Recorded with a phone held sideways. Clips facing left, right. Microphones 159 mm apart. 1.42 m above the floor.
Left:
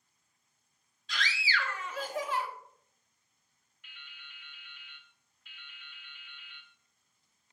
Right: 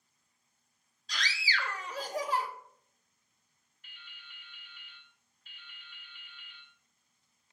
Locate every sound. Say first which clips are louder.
1.1 s a scream: left 2 dB; 40° right (ahead or behind), 1.2 m
3.8 s dripping: left 1 dB; 40° right (ahead or behind), 1.4 m